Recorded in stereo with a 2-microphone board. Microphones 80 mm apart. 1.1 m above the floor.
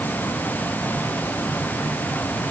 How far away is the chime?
I don't hear a chime.